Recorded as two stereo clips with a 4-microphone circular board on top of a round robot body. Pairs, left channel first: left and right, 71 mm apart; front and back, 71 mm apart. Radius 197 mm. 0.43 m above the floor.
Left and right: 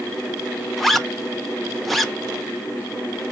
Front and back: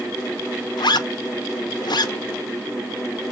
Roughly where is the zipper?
Ahead.